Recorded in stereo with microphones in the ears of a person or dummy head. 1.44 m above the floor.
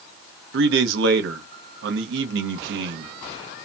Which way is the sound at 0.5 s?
70° right (ahead or behind).